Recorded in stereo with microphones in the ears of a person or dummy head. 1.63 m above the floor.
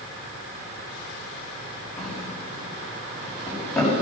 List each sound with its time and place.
2.0 s a drawer: 10° left (ahead or behind), 6.5 m